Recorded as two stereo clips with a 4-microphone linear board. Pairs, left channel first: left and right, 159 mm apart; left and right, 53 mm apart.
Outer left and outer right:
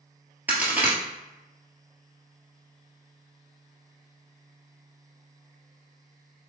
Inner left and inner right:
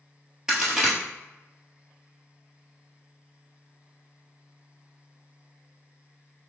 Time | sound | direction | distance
0.5 | a crack | 10° right (ahead or behind) | 1.4 m